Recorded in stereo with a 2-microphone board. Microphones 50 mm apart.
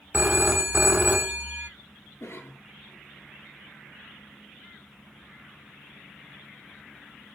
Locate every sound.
0.1 s a phone ringing: 35° right (ahead or behind), 0.8 m
2.2 s a cough: 60° left (ahead or behind), 3.5 m